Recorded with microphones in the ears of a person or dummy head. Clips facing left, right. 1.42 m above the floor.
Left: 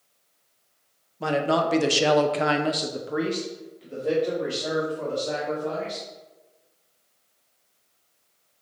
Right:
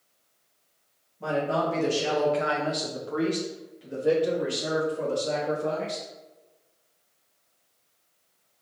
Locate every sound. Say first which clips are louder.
1.2 s a man speaking: left 3 dB; 80° left, 0.9 m; by 6.0 s 30° right (ahead or behind), 1.8 m